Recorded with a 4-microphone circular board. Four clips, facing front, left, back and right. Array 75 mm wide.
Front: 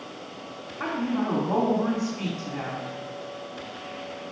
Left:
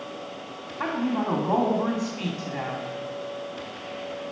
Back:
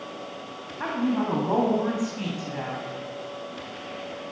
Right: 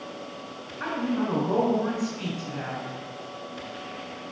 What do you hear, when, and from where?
0.8 s a woman speaking: 110° left, 2.5 m